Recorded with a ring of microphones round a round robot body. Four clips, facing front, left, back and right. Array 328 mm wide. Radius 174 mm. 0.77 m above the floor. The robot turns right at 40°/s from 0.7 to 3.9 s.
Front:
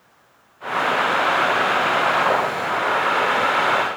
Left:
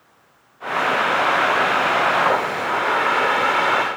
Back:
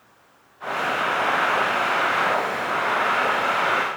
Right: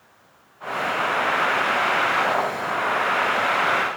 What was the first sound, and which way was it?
Only background noise.